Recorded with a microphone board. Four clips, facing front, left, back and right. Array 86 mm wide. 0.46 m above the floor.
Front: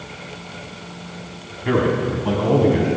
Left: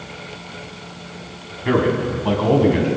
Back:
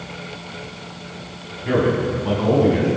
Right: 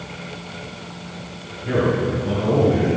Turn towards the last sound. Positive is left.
turn(degrees=90)